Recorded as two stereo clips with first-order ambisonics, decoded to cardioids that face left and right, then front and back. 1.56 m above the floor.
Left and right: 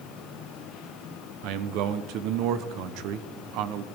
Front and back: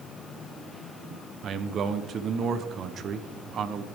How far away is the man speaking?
About 0.9 m.